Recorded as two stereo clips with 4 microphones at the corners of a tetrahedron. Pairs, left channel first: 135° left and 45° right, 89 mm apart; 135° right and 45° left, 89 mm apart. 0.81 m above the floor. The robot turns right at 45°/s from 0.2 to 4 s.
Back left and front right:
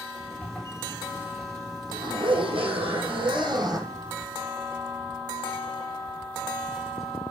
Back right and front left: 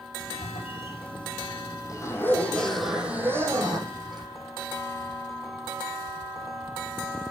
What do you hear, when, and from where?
0.4 s a zipper: 150° right, 5 m; by 4.3 s 10° left, 5 m